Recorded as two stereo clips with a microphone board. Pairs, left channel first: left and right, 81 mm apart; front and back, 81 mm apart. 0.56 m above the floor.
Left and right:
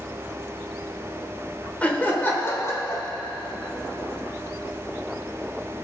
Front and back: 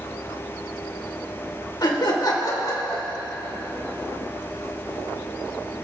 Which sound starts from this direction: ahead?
Laughter, at 1.8 s.